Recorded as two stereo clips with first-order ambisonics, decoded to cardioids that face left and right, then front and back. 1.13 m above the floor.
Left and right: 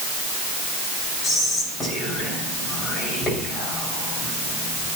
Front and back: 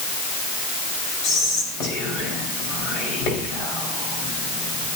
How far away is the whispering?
About 5 m.